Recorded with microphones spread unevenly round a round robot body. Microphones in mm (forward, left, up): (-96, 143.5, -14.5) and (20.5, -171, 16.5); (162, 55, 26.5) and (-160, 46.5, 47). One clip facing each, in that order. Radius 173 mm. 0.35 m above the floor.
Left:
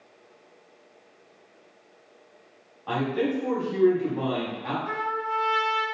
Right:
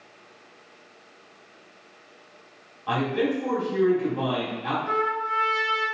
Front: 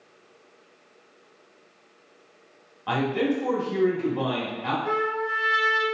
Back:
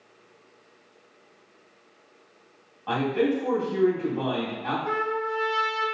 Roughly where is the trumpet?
Ahead.